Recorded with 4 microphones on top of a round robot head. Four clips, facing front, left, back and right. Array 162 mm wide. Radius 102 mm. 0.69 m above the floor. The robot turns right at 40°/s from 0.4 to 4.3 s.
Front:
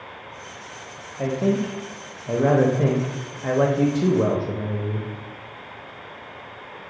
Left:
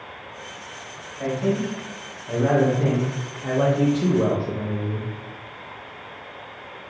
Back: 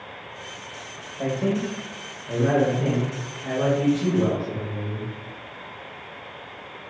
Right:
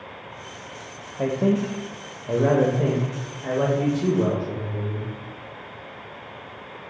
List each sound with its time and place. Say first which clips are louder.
1.2 s a man speaking: right 2 dB, front 2 dB; 85° right, 0.7 m; by 5.1 s 40° left, 0.7 m